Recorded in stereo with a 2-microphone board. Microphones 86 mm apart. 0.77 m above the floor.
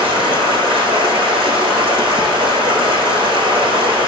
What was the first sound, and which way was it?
Running water, 75° right (ahead or behind).